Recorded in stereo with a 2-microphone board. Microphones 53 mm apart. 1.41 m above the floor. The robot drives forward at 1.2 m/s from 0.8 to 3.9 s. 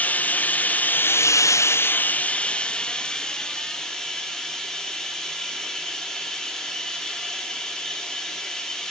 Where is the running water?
35° left (ahead or behind), 0.9 m; by 8.9 s 10° left (ahead or behind), 3 m.